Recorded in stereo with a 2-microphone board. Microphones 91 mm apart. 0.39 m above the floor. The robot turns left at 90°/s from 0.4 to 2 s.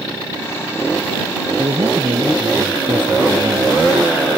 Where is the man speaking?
80° right; by 3.8 s 115° right.